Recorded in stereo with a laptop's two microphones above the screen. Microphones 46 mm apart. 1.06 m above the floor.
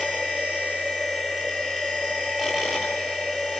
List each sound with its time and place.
0.0 s a machine running: 10° right (ahead or behind), 5 m